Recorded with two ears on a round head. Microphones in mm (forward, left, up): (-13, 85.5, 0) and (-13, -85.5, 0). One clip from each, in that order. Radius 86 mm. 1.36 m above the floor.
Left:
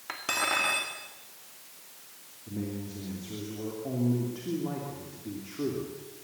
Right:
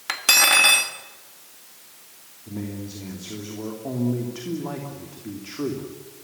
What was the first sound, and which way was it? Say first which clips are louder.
Cutlery clinking: right 12 dB; 75° right (ahead or behind).